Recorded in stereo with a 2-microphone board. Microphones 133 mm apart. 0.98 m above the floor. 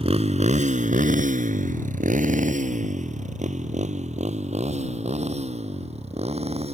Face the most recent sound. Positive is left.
turn(degrees=-50)  # may be behind; listen again after turning